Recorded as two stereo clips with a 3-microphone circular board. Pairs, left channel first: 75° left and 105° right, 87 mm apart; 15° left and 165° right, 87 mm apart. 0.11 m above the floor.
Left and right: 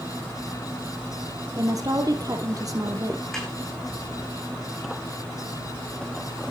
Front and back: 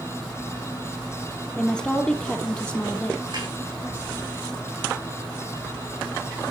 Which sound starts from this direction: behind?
A snare drum, at 3.3 s.